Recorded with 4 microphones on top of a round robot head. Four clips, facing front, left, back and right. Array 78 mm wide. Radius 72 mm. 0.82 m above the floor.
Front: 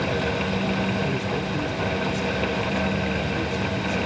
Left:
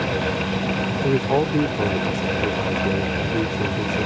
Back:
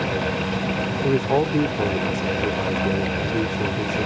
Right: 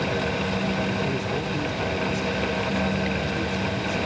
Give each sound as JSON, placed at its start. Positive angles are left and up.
{"t": 1.0, "sound": "a man speaking", "azimuth_deg": 135}